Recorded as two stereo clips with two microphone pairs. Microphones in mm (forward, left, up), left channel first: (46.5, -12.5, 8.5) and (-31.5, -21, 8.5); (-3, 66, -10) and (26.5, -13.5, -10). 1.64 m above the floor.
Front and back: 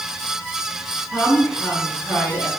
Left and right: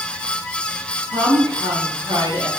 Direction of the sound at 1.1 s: 70° right.